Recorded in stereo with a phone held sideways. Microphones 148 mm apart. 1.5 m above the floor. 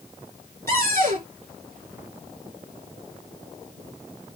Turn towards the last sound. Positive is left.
turn(degrees=-75)  # may be behind; listen again after turning